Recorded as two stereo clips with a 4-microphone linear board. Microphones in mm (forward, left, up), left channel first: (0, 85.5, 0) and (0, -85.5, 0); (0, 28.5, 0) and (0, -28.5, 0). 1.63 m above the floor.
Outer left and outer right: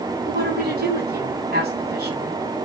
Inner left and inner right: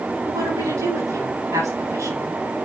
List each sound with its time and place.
0.2 s a woman speaking: 70° right (ahead or behind), 6.5 m